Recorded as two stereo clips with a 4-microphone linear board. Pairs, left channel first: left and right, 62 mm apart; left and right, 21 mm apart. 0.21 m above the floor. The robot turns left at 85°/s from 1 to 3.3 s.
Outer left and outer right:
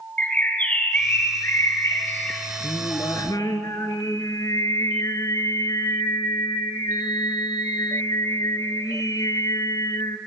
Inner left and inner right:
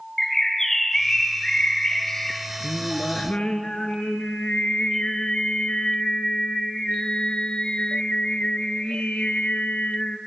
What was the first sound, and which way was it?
A bird, 150° left.